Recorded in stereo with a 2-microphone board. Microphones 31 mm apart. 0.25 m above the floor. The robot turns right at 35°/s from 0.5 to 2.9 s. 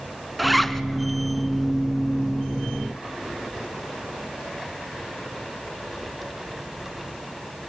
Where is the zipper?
Centre (ahead or behind), 0.7 m; by 0.8 s 10° left (ahead or behind), 0.7 m.